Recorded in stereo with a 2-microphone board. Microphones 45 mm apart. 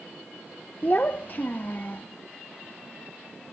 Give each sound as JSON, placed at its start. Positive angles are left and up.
{"t": 0.8, "sound": "a child speaking", "side_deg": 40, "distance_m": 0.5}